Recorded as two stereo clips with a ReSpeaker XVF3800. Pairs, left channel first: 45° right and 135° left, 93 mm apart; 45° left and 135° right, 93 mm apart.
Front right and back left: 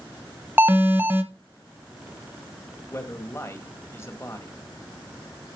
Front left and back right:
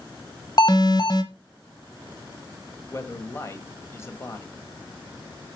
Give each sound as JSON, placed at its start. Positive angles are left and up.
{"t": 0.6, "sound": "an alarm", "azimuth_deg": 75, "distance_m": 1.0}
{"t": 2.9, "sound": "a man speaking", "azimuth_deg": 0, "distance_m": 1.3}